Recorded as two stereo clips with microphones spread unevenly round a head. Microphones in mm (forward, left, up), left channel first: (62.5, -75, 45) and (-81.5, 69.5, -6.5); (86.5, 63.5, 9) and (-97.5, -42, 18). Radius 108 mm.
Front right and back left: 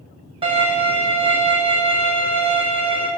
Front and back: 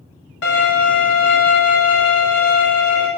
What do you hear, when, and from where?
0.4 s a violin: 65° left, 1.9 m